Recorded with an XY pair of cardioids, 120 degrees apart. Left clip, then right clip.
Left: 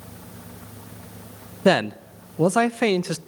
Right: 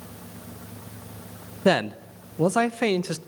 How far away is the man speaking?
About 0.7 m.